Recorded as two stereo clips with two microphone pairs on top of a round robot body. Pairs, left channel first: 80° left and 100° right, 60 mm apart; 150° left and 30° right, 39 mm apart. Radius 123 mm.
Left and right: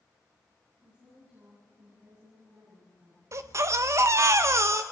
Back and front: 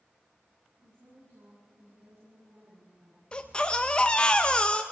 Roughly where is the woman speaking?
Ahead.